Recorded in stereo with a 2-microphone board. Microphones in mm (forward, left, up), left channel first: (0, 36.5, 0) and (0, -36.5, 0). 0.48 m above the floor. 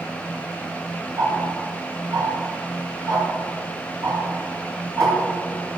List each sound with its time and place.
1.2 s ticking: 55° right (ahead or behind), 4 m